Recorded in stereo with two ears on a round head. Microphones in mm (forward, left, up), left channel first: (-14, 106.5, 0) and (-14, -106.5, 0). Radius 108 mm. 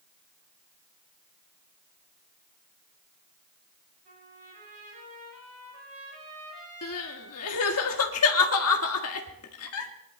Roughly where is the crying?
Left.